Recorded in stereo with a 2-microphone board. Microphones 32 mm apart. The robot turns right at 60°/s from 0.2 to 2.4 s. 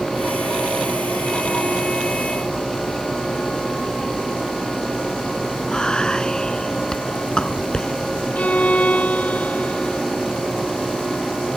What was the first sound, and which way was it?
Whispering, 25° left (ahead or behind).